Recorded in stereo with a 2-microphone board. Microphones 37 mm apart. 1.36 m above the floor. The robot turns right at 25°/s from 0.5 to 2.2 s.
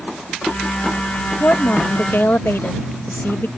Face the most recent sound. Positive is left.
turn(degrees=85)